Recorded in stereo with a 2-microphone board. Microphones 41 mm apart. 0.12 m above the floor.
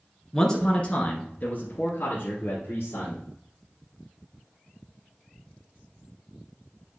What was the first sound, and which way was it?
A man speaking, 10° left (ahead or behind).